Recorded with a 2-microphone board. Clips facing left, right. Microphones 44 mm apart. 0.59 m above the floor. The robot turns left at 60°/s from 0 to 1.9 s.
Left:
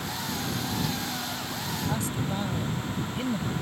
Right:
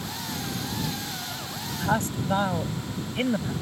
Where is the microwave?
I don't hear a microwave.